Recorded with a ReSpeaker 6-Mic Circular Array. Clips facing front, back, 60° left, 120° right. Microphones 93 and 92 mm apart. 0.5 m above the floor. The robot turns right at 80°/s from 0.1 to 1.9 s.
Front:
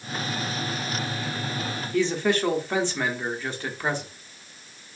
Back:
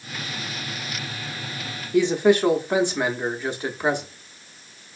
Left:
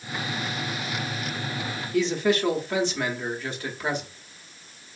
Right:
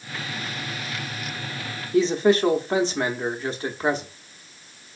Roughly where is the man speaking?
Behind right.